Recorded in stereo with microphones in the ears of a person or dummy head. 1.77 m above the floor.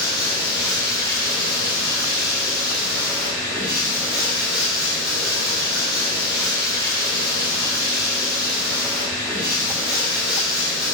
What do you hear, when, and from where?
0.0 s running water: centre (ahead or behind), 1.0 m